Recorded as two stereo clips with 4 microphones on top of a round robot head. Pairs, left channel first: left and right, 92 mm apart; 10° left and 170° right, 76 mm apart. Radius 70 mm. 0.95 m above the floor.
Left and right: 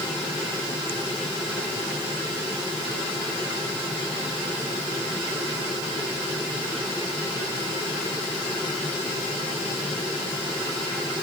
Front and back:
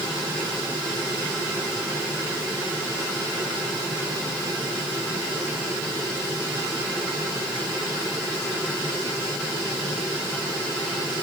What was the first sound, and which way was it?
Only background noise.